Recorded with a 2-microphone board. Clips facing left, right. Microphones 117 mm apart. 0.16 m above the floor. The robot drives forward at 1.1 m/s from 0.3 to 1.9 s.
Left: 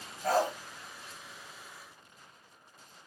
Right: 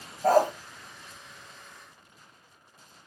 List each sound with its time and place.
0.2 s a dog barking: 45° right (ahead or behind), 1.2 m; by 0.5 s 50° right (ahead or behind), 1.0 m